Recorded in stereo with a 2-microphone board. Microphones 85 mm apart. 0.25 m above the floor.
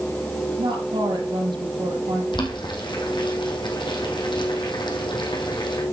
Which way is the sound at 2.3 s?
70° left (ahead or behind).